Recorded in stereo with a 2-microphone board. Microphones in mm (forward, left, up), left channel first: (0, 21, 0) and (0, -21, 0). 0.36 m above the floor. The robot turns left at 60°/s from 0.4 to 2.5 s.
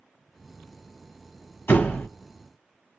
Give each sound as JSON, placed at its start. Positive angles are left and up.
{"t": 1.7, "sound": "a door slam", "side_deg": 70, "distance_m": 1.6}